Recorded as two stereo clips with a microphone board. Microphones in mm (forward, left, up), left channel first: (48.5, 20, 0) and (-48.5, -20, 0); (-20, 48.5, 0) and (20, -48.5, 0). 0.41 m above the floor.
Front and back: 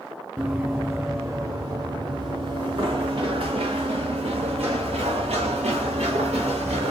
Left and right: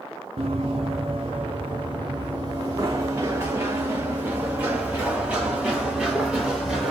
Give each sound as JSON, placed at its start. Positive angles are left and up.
{"t": 0.4, "sound": "running footsteps", "azimuth_deg": -80, "distance_m": 1.6}